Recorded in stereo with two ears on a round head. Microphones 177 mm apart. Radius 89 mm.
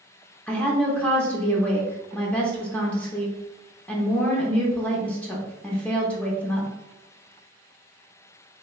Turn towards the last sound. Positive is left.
turn(degrees=5)  # may be behind; listen again after turning